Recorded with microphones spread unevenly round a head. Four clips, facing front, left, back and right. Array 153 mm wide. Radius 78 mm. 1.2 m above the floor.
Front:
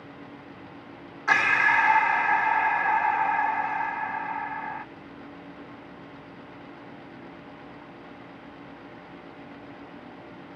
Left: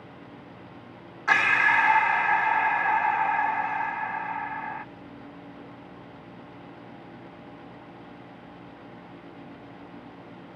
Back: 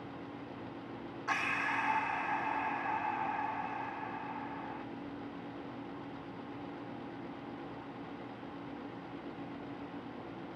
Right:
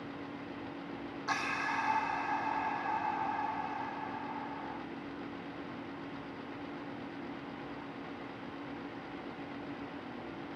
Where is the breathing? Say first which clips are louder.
Left 13 dB, front 13 dB; 35° left.